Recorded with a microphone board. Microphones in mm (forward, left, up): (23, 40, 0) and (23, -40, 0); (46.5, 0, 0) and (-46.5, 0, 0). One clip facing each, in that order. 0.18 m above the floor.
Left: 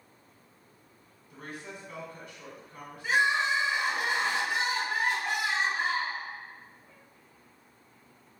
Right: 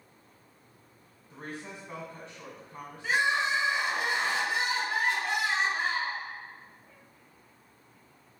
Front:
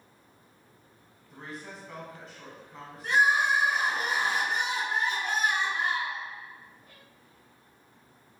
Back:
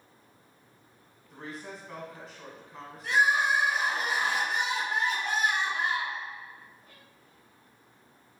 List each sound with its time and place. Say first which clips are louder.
1.3 s a woman speaking: right 1 dB, back 1 dB; 90° right, 1.1 m
3.0 s crying: left 1 dB, front 1 dB; 20° left, 1.5 m